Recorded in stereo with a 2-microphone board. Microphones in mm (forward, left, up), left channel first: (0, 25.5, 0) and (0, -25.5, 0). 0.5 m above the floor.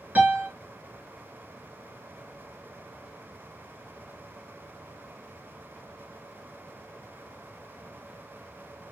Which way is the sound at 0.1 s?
25° right (ahead or behind).